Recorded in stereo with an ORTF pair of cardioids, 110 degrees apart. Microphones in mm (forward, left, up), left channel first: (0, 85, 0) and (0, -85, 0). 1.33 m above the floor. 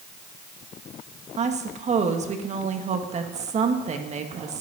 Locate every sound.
1.4 s a woman speaking: 40° right, 1.7 m